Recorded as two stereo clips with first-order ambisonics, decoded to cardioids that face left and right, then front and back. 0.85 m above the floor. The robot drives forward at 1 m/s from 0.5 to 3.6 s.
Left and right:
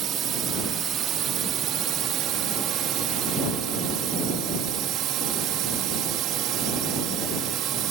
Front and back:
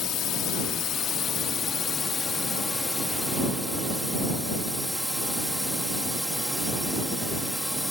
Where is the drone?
45° right; by 7.9 s 90° right.